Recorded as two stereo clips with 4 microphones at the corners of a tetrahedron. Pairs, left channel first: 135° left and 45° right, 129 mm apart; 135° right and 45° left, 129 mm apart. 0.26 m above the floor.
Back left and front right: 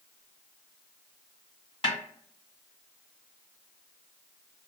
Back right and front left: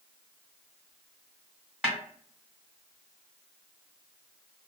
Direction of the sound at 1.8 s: 125° left.